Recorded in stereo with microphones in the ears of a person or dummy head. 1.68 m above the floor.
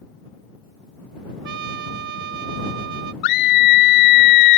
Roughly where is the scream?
Left.